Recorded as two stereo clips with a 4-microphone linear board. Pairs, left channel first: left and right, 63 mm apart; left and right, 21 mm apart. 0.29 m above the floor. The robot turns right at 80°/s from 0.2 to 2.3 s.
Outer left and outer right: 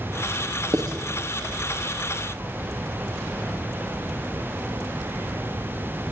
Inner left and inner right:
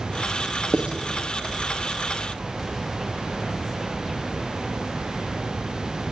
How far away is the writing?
About 4.5 m.